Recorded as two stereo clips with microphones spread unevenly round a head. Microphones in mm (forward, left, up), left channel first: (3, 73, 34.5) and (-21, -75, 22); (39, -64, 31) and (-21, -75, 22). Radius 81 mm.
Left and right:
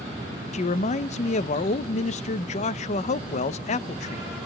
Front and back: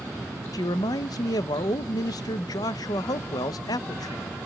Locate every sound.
0.5 s a man speaking: 35° left, 0.6 m